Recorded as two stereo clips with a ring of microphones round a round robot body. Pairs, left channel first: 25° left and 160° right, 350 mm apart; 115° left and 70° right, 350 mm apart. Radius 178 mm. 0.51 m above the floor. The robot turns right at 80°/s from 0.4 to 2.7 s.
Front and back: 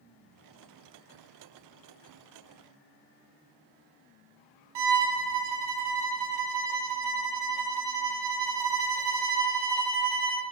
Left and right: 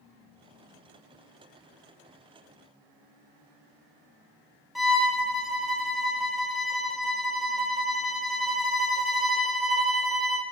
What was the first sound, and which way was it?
A violin, 155° right.